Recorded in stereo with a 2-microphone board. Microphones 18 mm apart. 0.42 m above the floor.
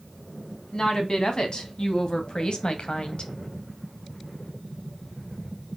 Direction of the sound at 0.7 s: 45° left (ahead or behind).